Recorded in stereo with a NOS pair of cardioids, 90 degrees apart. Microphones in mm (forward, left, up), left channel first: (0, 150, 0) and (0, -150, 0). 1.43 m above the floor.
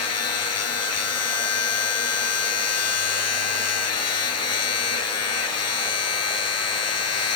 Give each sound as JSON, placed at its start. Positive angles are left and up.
{"t": 0.0, "sound": "a machine running", "azimuth_deg": 55}